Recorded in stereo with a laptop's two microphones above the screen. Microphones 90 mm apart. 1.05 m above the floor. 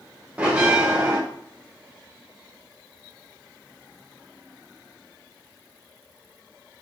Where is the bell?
15° right (ahead or behind), 1.0 m.